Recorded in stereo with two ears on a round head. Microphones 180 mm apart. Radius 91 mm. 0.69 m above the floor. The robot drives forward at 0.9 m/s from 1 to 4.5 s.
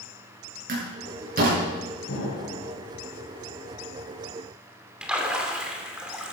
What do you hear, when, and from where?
0.7 s a door slam: 40° right (ahead or behind), 7.5 m; by 1.6 s 45° right (ahead or behind), 7 m
2.1 s an explosion: 70° left (ahead or behind), 4 m; by 2.7 s 75° left (ahead or behind), 4 m
5.0 s a splash: 5° right (ahead or behind), 2.5 m